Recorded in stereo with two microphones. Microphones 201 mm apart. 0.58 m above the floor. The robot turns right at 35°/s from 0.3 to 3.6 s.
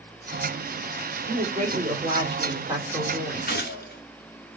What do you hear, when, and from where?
1.2 s a woman speaking: 65° right, 1.7 m; by 3.6 s 15° left, 1.7 m
3.5 s a gunshot: 50° left (ahead or behind), 1.3 m; by 4.0 s 55° left (ahead or behind), 1.3 m